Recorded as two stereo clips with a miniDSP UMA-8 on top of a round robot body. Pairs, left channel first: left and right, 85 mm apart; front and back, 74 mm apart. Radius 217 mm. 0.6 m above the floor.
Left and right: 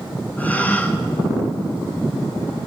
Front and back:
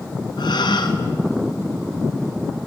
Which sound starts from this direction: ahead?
A gasp, at 0.4 s.